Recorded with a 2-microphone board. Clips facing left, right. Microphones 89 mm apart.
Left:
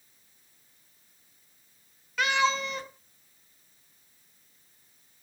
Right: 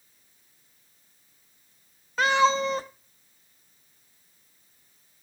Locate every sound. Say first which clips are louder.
2.2 s a cat meowing: right 5 dB; 35° right (ahead or behind), 0.5 m